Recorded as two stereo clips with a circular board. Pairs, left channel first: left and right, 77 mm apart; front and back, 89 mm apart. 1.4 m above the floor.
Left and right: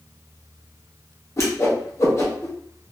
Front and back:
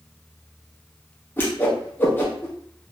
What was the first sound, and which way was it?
A whoosh, 60° left.